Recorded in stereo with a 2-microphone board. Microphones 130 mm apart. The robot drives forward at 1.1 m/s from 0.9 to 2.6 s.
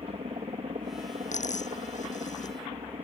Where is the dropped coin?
75° left (ahead or behind); by 2.6 s 80° left.